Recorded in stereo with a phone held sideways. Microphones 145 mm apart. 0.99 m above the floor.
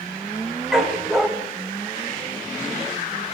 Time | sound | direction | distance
0.7 | a dog barking | 5° right (ahead or behind) | 2.5 m